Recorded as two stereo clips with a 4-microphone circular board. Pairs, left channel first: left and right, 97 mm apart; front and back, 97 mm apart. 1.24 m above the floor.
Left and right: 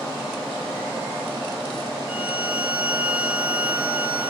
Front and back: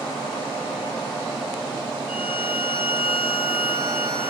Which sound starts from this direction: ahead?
A violin, at 2.1 s.